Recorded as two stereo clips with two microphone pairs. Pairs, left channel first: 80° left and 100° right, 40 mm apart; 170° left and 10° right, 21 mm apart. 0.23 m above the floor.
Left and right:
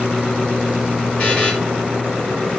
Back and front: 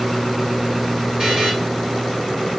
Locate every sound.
1.2 s a buzzer: 30° left, 3 m